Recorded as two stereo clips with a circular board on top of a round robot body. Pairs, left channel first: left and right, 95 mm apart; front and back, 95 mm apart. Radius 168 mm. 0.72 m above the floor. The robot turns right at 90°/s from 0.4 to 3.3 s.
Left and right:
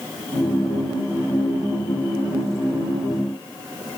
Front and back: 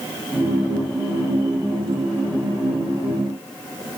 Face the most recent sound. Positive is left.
No sound to turn to.